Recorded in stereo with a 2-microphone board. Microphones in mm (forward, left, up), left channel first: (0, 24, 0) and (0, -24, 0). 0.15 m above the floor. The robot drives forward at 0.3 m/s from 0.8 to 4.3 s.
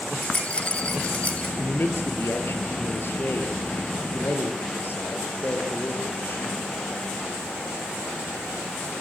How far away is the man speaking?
About 3.5 m.